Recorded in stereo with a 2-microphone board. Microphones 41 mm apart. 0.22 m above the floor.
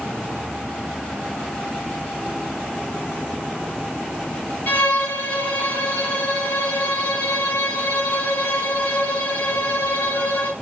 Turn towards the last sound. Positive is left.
turn(degrees=50)  # may be behind; listen again after turning